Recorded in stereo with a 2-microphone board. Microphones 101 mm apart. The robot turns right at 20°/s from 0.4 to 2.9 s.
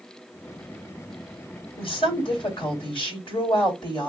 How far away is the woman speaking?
About 2 m.